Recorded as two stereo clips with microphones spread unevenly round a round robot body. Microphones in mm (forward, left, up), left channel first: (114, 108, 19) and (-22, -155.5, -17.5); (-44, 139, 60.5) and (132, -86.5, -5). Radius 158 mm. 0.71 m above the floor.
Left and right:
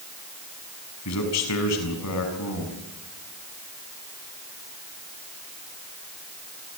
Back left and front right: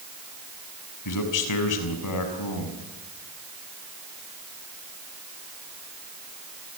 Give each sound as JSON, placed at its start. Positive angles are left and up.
{"t": 1.1, "sound": "a man speaking", "azimuth_deg": 110, "distance_m": 6.0}